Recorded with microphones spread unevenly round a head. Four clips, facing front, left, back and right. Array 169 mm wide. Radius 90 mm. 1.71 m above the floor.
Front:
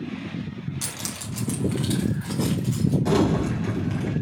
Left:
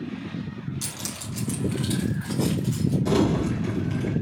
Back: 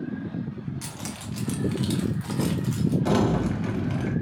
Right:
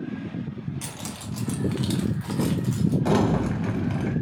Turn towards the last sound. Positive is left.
turn(degrees=-95)